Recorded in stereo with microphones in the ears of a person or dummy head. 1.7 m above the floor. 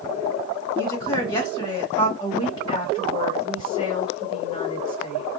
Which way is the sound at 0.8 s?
25° left (ahead or behind).